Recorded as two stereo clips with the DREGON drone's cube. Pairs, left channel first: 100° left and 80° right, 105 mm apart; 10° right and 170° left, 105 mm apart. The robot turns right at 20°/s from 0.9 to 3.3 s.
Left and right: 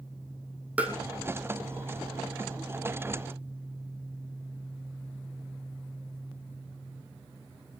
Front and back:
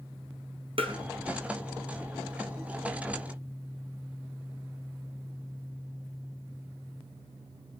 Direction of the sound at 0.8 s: 155° right.